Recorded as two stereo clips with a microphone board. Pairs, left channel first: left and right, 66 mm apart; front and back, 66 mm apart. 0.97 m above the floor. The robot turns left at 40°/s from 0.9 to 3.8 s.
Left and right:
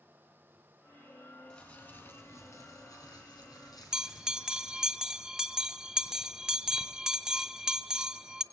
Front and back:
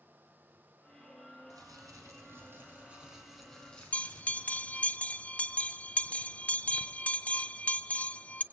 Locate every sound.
1.5 s crumpling: 165° left, 4 m; by 4.9 s 75° left, 4 m
3.9 s a bell: 25° right, 0.5 m